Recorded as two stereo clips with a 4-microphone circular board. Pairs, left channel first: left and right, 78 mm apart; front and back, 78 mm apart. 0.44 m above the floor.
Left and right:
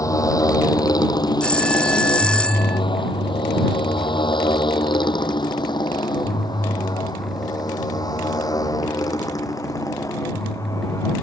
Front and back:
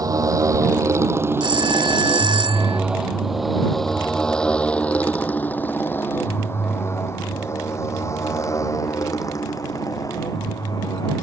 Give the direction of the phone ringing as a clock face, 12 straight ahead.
6 o'clock.